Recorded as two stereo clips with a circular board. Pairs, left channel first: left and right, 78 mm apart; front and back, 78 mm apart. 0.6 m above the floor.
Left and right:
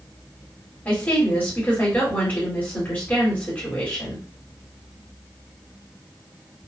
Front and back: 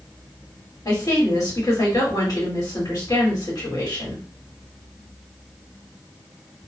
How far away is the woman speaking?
About 1.7 m.